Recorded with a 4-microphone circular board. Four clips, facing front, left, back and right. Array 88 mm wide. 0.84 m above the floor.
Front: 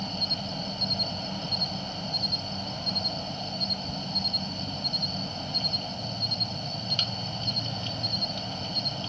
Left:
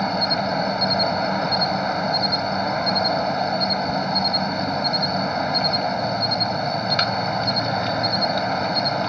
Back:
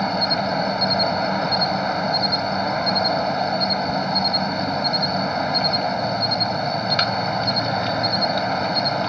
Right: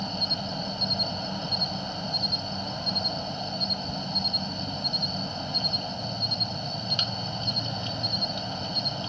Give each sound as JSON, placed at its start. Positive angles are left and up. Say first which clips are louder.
{"t": 0.0, "sound": "an insect", "louder": "left 12 dB, back 14 dB", "azimuth_deg": 135}